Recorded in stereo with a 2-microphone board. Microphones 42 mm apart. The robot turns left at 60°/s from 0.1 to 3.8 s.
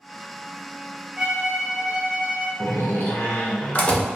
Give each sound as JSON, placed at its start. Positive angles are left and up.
{"t": 1.2, "sound": "a violin", "azimuth_deg": -140, "distance_m": 1.9}
{"t": 2.6, "sound": "a door slam", "azimuth_deg": 110, "distance_m": 0.7}